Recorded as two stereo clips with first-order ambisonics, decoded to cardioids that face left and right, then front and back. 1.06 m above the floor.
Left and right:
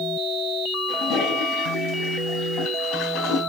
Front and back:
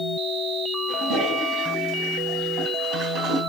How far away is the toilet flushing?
About 4 m.